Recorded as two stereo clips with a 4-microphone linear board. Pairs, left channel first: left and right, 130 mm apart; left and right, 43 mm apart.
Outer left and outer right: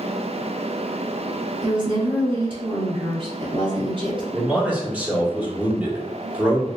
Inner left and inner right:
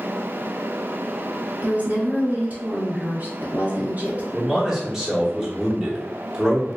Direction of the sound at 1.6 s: 40° right (ahead or behind).